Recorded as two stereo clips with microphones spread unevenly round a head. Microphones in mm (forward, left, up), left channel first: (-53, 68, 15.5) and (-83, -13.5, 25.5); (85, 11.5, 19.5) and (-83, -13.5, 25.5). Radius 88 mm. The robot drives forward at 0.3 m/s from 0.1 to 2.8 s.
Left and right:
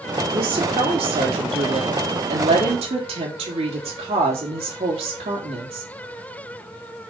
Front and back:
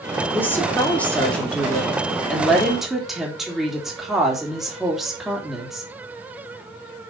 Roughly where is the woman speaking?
Right.